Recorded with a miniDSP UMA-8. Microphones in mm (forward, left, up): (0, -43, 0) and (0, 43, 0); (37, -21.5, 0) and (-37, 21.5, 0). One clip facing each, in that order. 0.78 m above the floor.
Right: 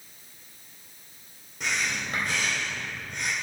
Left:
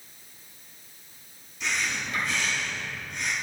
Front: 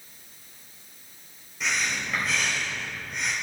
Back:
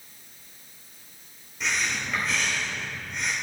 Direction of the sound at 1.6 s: 120° right.